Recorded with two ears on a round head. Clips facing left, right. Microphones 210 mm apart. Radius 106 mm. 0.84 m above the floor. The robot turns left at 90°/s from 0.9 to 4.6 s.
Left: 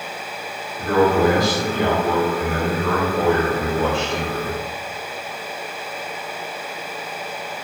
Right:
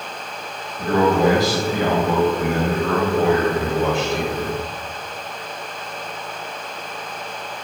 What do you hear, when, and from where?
0.8 s a man speaking: straight ahead, 1.8 m; by 4.6 s 30° left, 1.8 m